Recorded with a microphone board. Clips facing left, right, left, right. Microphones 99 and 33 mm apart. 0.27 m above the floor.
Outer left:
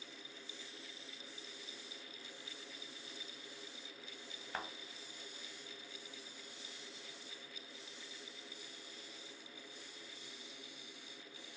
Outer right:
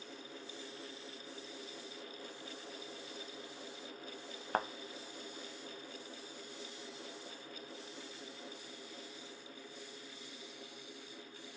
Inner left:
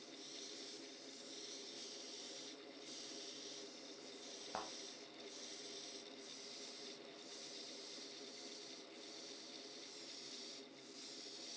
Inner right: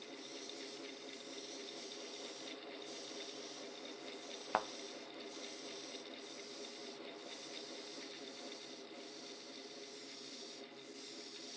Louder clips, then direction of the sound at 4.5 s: Outer right 9 dB, inner right 10 dB; 45° right (ahead or behind).